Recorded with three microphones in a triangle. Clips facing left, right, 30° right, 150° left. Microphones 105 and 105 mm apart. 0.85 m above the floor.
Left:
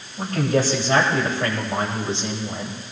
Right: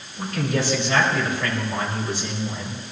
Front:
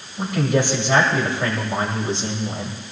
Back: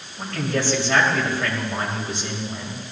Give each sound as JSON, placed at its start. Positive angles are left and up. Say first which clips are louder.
{"t": 0.2, "sound": "a man speaking", "louder": "left 4 dB, front 5 dB", "azimuth_deg": 45, "distance_m": 5.0}